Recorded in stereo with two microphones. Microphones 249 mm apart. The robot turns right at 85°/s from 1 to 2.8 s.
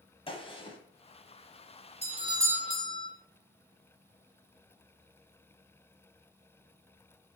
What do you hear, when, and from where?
0.3 s a gunshot: 20° left (ahead or behind), 1.4 m
2.0 s a doorbell: 25° right (ahead or behind), 1.5 m; by 3.1 s 5° left (ahead or behind), 1.5 m